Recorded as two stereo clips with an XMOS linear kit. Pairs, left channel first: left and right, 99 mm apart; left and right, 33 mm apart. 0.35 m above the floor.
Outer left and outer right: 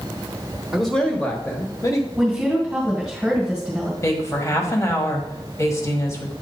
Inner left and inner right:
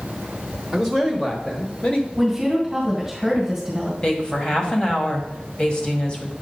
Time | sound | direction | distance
0.7 | a man speaking | 5° right (ahead or behind) | 1.0 m
2.2 | a woman speaking | 10° right (ahead or behind) | 2 m
4.0 | a woman speaking | 30° left (ahead or behind) | 1.7 m